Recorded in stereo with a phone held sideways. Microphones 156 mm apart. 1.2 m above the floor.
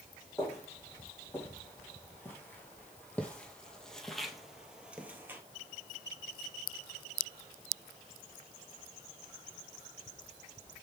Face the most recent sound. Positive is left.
turn(degrees=-15)  # may be behind; listen again after turning